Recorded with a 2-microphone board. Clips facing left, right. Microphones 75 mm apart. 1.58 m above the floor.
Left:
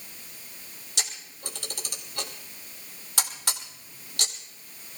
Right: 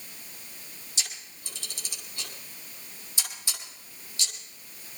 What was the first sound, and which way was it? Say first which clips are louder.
A camera shutter: left 4 dB; 70° left (ahead or behind).